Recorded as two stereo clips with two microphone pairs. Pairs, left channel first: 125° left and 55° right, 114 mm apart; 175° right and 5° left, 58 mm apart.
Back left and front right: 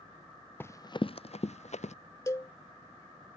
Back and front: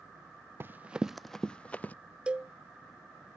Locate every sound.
0.6 s running footsteps: 55° left; by 1.9 s 125° left
2.3 s a cowbell: 70° left